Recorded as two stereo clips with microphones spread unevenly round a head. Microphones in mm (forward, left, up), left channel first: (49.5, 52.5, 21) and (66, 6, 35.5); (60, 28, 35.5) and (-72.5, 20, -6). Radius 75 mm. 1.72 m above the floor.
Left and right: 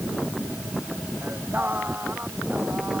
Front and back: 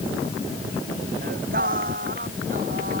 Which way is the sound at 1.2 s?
140° right.